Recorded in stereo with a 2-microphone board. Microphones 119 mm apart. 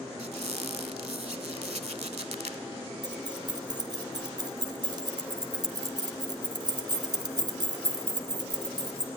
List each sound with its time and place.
0.2 s a squeak: 75° right (ahead or behind), 0.7 m
3.0 s keys jangling: 40° right (ahead or behind), 1.3 m